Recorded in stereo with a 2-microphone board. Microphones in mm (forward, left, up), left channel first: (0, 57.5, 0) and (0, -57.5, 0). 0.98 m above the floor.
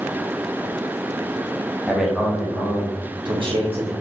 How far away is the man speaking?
About 1.0 m.